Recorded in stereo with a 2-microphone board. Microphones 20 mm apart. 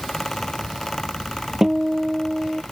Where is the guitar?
25° right (ahead or behind).